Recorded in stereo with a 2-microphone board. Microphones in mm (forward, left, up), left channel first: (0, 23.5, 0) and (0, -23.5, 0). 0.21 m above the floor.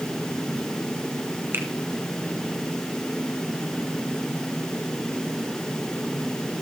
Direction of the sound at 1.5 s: 50° right (ahead or behind).